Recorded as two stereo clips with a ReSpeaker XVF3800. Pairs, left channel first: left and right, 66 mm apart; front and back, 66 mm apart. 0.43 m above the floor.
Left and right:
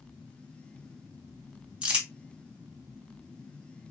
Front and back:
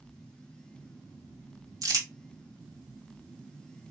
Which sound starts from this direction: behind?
Crumpling, at 1.8 s.